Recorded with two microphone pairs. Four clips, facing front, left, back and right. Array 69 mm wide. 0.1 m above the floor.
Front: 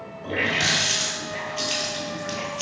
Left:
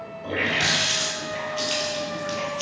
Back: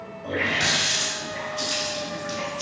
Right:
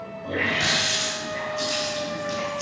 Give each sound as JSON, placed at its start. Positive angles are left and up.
{"t": 0.2, "sound": "a running tap", "azimuth_deg": 40, "distance_m": 1.4}